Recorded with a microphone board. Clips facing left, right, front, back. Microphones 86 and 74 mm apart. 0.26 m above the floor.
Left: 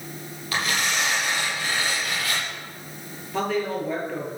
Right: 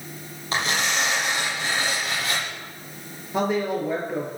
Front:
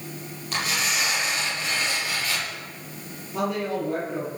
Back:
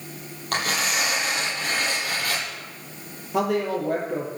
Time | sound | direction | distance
0.5 | tearing paper | 150° right | 8 m
3.3 | a woman speaking | 160° right | 7 m